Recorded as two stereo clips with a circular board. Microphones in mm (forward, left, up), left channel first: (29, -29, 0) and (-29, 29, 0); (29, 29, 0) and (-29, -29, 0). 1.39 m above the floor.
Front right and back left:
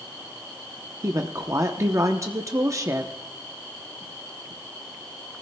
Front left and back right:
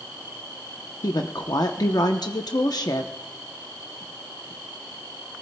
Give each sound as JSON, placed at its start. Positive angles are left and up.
{"t": 1.0, "sound": "a woman speaking", "azimuth_deg": 85, "distance_m": 0.8}